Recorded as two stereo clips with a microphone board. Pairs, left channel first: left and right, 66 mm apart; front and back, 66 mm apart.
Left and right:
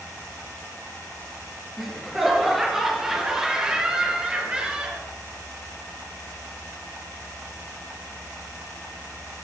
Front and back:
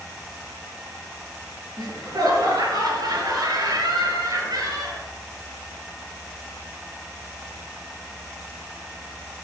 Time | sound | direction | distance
1.8 | laughter | straight behind | 5.5 m